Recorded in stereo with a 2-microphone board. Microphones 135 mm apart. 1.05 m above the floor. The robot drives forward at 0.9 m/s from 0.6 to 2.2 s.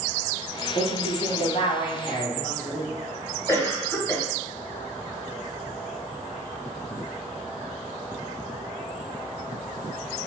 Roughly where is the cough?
Centre.